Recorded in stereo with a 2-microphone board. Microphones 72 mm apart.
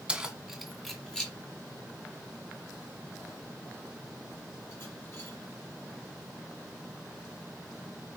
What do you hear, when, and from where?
0.1 s keys jangling: 15° right (ahead or behind), 1.5 m; by 5.3 s 35° left (ahead or behind), 5 m